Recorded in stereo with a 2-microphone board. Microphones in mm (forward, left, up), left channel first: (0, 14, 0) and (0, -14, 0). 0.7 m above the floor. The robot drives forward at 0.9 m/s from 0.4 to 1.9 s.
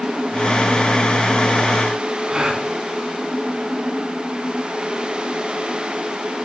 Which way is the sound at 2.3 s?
25° right (ahead or behind).